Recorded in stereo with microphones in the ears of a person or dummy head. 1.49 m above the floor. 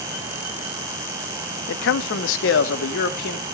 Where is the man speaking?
60° left (ahead or behind), 0.8 m.